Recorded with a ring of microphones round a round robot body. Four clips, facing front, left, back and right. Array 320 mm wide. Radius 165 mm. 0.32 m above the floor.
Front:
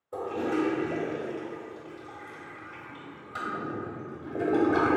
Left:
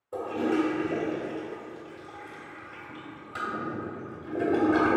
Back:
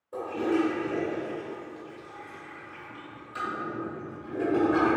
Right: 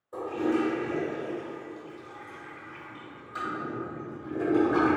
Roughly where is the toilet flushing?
Ahead left.